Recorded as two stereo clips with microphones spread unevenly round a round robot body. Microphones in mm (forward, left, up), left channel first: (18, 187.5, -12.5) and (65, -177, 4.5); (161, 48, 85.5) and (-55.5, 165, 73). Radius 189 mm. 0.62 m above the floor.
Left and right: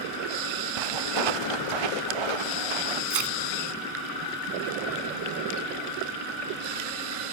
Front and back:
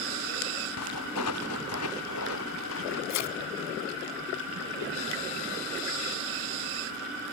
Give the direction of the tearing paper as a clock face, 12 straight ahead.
1 o'clock.